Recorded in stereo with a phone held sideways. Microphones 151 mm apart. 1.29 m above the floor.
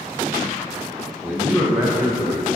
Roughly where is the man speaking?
Centre.